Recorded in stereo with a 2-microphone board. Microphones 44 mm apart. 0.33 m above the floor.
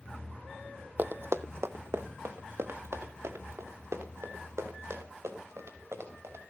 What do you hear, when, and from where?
1.0 s running footsteps: 45° right (ahead or behind), 0.6 m; by 6.4 s 70° right (ahead or behind), 6 m